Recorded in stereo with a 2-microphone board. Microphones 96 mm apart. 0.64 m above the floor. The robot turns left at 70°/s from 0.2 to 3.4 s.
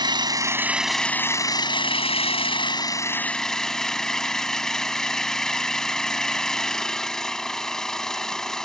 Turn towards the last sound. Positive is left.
turn(degrees=5)